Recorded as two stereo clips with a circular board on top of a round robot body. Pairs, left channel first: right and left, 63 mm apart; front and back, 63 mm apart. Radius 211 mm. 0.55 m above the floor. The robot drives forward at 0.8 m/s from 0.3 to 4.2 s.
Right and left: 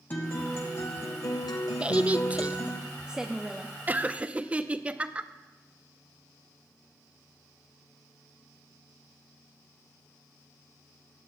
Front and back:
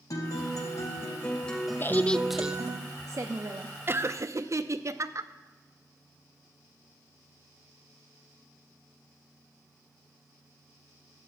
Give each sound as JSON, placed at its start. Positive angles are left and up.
{"t": 0.1, "sound": "a guitar", "azimuth_deg": -30, "distance_m": 1.3}
{"t": 1.8, "sound": "a woman speaking", "azimuth_deg": 30, "distance_m": 0.8}
{"t": 3.9, "sound": "laughter", "azimuth_deg": 140, "distance_m": 0.8}